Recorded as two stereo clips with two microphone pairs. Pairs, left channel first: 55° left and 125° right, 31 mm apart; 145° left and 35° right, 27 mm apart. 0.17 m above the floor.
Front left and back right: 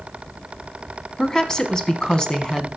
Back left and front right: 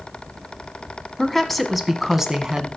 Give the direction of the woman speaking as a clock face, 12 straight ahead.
9 o'clock.